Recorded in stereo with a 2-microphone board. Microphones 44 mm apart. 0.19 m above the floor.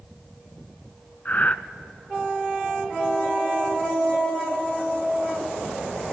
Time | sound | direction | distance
1.2 | breathing | 40° left (ahead or behind) | 0.6 m